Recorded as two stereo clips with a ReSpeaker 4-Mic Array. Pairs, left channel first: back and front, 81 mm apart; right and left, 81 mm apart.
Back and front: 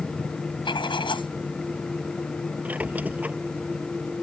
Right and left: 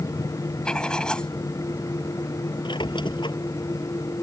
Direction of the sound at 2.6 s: 70° right.